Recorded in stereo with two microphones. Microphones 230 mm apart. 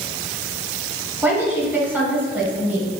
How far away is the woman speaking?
About 1.3 m.